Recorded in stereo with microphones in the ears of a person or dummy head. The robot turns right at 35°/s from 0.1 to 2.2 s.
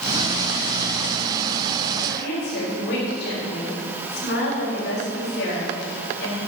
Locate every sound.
2.1 s a woman speaking: 85° left, 4.5 m; by 6.4 s 80° left, 4.5 m